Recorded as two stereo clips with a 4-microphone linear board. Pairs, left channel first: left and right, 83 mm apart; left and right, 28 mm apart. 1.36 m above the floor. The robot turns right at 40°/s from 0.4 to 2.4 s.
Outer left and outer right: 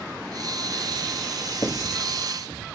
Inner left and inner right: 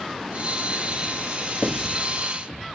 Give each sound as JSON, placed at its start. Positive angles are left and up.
{"t": 1.6, "sound": "writing", "side_deg": 50, "distance_m": 1.8}